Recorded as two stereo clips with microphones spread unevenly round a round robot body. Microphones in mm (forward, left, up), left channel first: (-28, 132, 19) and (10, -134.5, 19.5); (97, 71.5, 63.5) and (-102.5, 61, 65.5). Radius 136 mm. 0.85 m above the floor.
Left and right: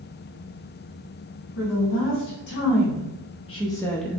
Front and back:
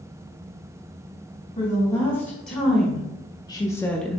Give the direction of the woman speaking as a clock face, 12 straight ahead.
10 o'clock.